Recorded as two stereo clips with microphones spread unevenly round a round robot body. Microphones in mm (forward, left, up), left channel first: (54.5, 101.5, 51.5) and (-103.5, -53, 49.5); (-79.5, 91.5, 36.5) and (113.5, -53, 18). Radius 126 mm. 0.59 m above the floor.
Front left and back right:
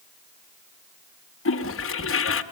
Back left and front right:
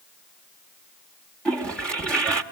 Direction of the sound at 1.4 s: 55° left.